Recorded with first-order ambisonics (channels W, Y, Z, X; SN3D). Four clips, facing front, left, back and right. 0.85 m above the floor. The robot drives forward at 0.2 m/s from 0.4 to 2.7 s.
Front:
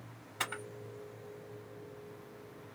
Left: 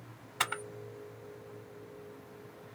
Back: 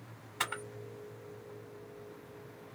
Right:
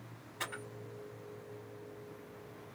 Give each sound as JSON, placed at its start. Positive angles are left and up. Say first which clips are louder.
{"t": 0.4, "sound": "a camera shutter", "louder": "left 8 dB, back 2 dB", "azimuth_deg": 105, "distance_m": 1.0}